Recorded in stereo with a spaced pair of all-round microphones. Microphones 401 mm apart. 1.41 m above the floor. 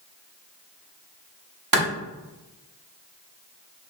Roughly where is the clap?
Right.